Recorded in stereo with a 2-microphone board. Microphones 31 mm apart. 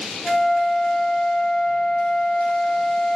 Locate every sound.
0.2 s a flute: centre (ahead or behind), 2 m